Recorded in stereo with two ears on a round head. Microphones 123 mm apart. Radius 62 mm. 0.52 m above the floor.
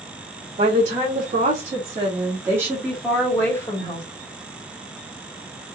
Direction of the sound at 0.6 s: 55° right (ahead or behind).